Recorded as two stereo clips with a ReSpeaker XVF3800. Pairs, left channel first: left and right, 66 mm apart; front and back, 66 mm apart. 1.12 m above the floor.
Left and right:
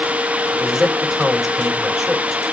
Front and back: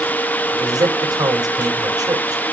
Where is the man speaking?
175° right, 3.5 m.